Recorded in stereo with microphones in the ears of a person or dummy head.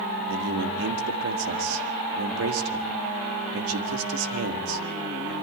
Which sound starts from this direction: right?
A man speaking, at 0.3 s.